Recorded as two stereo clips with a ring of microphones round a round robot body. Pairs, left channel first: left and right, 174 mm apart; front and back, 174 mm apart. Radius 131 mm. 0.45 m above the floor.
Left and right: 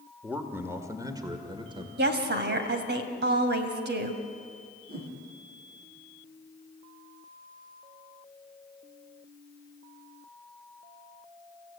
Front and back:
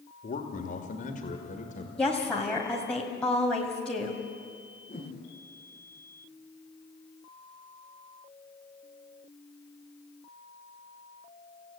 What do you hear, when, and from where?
0.2 s a man speaking: 10° right, 2.0 m; by 1.9 s 35° right, 2 m
2.0 s a woman speaking: 85° right, 2.5 m
4.9 s a whoosh: 65° right, 5.5 m